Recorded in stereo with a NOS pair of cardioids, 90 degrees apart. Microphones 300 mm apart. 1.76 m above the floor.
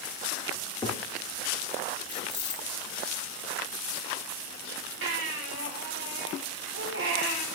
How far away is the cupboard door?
About 3 m.